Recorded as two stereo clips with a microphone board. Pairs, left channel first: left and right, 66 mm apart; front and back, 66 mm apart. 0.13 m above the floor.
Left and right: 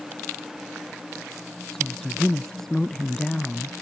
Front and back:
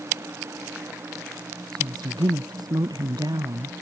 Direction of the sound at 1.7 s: 175° left.